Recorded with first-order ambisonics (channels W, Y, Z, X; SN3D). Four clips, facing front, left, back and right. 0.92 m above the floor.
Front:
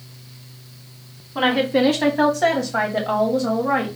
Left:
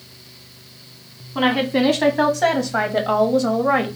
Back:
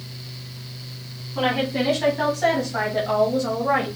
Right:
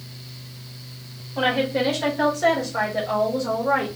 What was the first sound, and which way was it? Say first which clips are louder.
A woman speaking: left 3 dB, front 4 dB; 50° left.